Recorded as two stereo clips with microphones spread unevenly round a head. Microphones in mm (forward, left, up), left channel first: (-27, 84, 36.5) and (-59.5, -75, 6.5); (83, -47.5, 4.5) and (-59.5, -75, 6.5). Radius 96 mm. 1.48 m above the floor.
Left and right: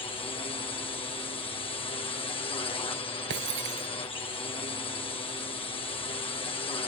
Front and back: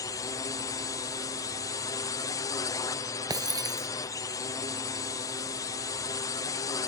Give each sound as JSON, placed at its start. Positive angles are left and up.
{"t": 0.0, "sound": "a drone", "azimuth_deg": 45}
{"t": 3.3, "sound": "breaking glass", "azimuth_deg": -105}